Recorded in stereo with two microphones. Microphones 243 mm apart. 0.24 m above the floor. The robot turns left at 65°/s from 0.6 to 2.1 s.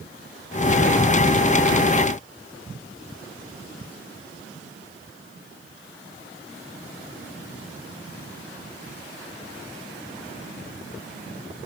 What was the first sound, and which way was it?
Only background noise.